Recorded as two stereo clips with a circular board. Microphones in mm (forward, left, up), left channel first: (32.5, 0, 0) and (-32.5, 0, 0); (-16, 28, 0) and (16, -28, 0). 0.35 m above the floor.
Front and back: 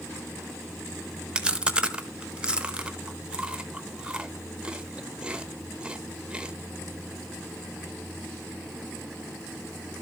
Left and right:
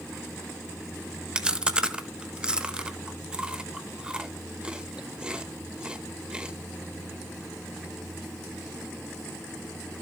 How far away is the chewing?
About 0.9 m.